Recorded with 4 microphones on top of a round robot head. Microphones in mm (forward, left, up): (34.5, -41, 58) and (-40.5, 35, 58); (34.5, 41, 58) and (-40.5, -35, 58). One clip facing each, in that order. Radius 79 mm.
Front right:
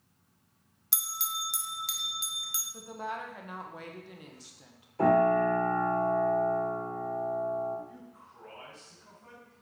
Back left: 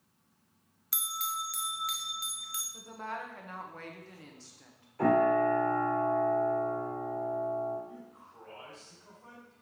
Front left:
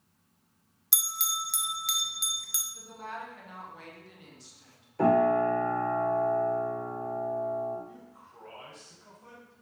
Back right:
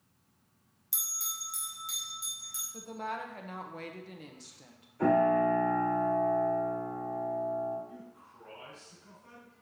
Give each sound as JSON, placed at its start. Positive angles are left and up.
{"t": 0.9, "sound": "a bell", "azimuth_deg": 20, "distance_m": 0.6}
{"t": 2.7, "sound": "a woman speaking", "azimuth_deg": -115, "distance_m": 1.1}
{"t": 5.0, "sound": "a piano", "azimuth_deg": 20, "distance_m": 2.5}
{"t": 7.9, "sound": "a man speaking", "azimuth_deg": 65, "distance_m": 3.5}